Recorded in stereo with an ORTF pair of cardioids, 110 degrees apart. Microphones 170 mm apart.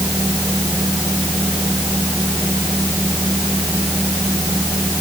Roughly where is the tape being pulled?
I don't hear tape being pulled.